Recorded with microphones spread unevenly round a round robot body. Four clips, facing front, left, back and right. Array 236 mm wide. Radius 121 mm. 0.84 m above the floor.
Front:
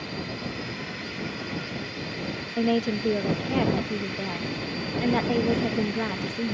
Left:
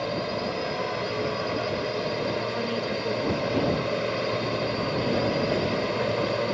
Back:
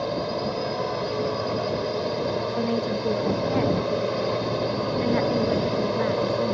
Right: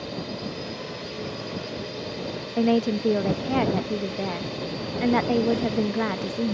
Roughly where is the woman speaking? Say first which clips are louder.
Right 6 dB, even; right.